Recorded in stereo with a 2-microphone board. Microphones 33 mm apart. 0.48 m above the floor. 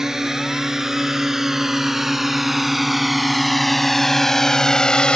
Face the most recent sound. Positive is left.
turn(degrees=25)  # may be behind; listen again after turning